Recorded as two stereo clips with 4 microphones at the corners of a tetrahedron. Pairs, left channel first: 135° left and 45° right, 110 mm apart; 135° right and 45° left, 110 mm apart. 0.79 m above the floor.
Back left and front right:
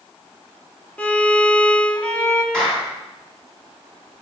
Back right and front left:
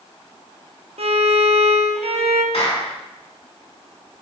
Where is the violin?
60° left, 0.7 m.